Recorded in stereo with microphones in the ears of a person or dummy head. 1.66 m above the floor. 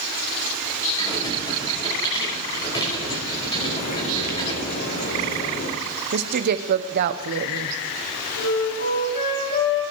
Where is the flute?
60° left (ahead or behind), 8.5 m.